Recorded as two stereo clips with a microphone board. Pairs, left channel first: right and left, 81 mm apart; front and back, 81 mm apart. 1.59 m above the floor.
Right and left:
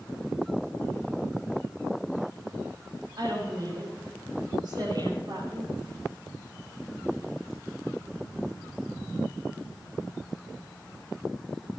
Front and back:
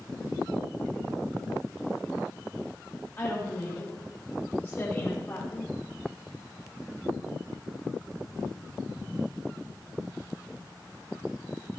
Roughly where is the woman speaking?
Ahead left.